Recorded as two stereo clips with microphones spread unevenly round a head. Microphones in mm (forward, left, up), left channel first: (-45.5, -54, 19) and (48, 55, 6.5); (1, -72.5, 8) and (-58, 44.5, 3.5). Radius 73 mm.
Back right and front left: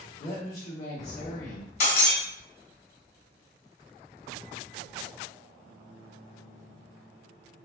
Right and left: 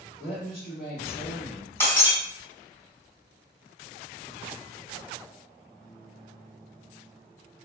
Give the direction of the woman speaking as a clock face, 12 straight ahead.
3 o'clock.